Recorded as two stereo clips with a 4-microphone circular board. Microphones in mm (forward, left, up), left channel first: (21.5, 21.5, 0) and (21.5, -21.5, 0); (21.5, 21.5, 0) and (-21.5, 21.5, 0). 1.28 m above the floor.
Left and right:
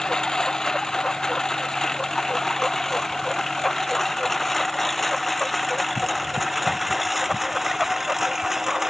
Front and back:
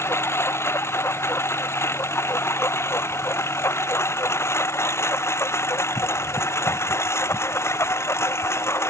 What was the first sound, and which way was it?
A lawn mower, 15° left.